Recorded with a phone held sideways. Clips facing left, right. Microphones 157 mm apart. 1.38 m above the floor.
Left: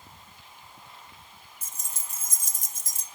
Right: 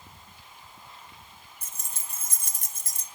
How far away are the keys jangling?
About 0.8 m.